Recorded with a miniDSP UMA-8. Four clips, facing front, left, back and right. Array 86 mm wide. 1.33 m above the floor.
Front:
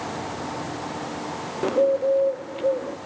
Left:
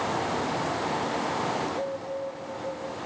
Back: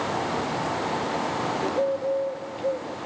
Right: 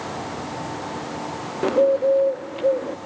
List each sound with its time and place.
1.6 s a bird: 70° right, 0.6 m